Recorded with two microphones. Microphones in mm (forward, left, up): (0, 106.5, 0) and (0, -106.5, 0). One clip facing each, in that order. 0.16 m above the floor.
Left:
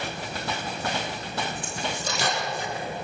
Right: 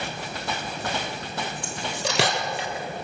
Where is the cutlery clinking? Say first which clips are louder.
Right 1 dB; 75° right (ahead or behind), 3 m.